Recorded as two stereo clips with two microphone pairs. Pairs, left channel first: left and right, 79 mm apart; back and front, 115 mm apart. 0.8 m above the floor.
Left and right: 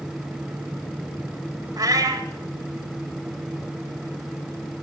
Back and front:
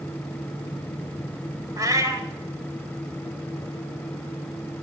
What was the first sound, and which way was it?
A cat meowing, 60° right.